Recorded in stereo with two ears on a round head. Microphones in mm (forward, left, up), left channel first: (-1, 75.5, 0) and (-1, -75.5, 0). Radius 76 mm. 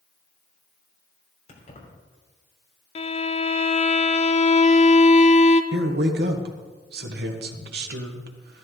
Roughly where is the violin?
Left.